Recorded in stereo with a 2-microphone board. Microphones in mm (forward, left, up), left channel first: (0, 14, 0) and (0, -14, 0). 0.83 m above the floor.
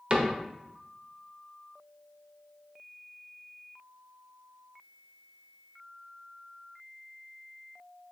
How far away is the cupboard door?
About 0.7 m.